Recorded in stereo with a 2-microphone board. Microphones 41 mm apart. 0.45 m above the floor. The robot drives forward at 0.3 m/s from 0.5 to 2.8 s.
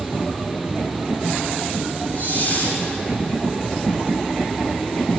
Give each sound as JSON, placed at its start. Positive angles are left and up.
{"t": 2.1, "sound": "a hiss", "side_deg": 50, "distance_m": 6.5}